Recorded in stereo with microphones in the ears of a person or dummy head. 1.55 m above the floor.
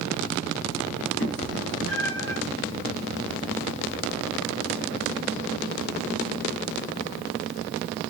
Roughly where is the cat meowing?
Left.